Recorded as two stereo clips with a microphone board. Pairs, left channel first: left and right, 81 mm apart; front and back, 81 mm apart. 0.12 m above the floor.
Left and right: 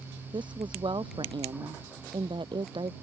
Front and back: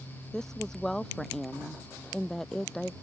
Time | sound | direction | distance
0.3 | a woman speaking | 85° right | ?